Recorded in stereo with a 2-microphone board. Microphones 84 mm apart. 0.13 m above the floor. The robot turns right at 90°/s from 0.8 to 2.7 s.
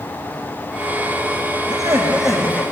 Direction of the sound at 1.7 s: 55° right.